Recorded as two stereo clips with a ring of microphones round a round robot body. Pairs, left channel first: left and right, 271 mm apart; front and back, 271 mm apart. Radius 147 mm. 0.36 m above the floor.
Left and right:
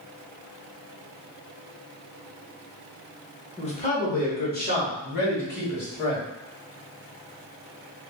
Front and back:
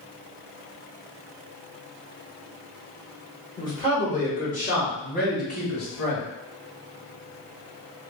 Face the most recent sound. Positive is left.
turn(degrees=45)